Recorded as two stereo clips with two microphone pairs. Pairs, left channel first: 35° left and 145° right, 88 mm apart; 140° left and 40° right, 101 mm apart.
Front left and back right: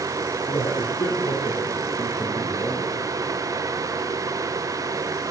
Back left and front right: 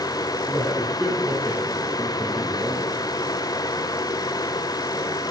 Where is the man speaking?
50° left, 5 m; by 3.1 s 20° left, 4.5 m.